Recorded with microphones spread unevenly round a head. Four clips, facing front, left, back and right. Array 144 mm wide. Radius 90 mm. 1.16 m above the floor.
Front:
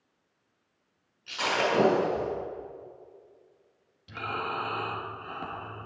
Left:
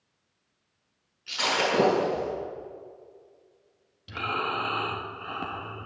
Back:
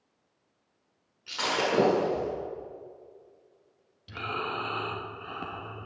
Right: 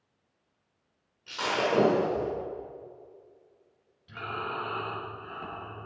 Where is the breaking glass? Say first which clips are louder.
Left 1 dB, front 1 dB; 155° right, 7 m.